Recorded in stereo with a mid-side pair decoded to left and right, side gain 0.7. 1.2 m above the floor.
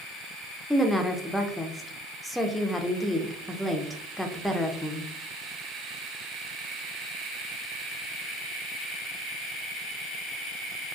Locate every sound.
0.7 s a woman speaking: 5° left, 0.5 m